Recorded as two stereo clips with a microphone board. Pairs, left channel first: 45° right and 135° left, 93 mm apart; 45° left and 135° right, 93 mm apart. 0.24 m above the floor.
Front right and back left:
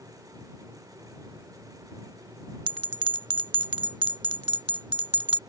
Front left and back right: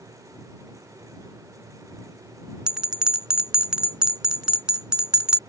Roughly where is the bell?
Behind left.